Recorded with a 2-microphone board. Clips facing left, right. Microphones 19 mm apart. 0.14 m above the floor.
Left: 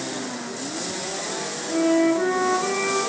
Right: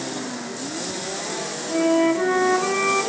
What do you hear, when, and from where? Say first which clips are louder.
1.7 s a flute: right 1 dB; 5° right (ahead or behind), 2.5 m